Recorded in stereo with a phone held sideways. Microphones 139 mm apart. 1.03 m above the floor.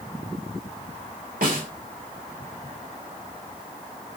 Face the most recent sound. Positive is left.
turn(degrees=-75)  # may be behind; listen again after turning